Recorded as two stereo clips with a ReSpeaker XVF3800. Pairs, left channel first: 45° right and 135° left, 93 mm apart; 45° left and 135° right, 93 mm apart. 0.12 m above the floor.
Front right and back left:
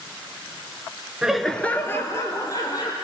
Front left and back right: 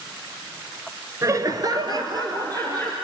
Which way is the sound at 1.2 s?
150° right.